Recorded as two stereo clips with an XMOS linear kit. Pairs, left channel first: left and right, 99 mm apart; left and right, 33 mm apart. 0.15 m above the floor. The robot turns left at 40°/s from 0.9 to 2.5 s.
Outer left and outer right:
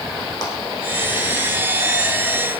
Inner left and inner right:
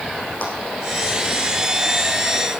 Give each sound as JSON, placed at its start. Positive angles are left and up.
{"t": 0.4, "sound": "a clap", "side_deg": 45, "distance_m": 7.5}